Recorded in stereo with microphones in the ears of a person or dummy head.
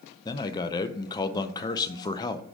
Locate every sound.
0.2 s a man speaking: 20° left (ahead or behind), 0.6 m